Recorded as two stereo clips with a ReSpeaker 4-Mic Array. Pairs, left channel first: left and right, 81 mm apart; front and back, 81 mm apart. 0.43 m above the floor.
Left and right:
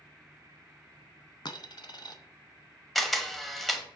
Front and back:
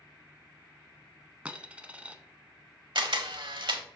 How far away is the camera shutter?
About 0.8 m.